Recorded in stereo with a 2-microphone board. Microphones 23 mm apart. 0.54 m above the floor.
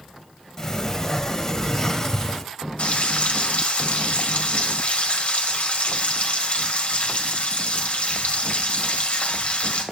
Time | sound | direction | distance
0.6 | a sliding door | 25° left (ahead or behind) | 0.9 m
2.8 | frying | 65° left (ahead or behind) | 1.5 m